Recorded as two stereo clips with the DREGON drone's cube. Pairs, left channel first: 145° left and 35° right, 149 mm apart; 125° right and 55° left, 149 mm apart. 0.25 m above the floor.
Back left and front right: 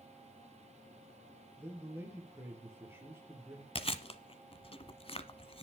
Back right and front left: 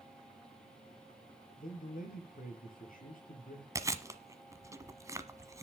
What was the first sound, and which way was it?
A man speaking, 110° right.